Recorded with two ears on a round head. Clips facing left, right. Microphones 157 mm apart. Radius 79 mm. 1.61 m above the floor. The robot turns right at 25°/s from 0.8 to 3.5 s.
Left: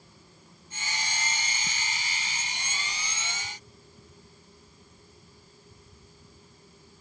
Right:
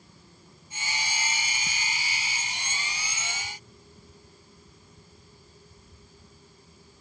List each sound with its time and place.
Only background noise.